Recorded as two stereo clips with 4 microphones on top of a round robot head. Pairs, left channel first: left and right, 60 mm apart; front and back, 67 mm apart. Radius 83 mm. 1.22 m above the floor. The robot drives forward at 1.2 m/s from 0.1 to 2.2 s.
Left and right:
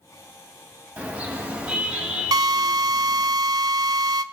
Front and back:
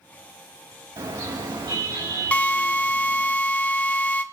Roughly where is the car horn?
Behind right.